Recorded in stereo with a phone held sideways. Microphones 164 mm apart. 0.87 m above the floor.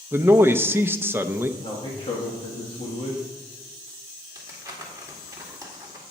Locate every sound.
0.1 s a man speaking: 15° right (ahead or behind), 0.6 m
1.6 s a man speaking: 35° left (ahead or behind), 1.7 m
4.3 s crumpling: 20° right (ahead or behind), 1.8 m